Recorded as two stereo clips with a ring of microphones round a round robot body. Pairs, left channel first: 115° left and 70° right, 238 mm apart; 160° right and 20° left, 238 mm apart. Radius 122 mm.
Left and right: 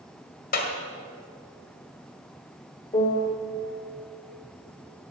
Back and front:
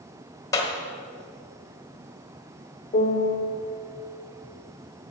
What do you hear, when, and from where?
0.5 s a clap: 135° left, 1.5 m
2.9 s a piano: 170° left, 1.4 m